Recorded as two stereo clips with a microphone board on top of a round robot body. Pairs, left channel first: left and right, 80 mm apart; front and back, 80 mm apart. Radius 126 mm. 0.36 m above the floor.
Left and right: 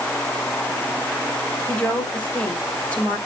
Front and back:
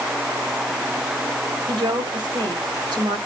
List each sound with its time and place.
1.7 s a woman speaking: 160° left, 4 m